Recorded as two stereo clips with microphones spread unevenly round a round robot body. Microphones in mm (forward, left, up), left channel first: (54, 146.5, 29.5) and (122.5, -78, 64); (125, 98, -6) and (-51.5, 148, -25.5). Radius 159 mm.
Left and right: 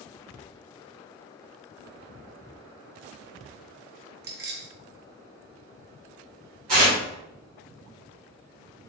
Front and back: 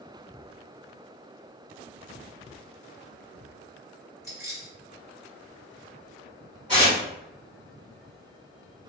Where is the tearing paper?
105° right, 1.2 m.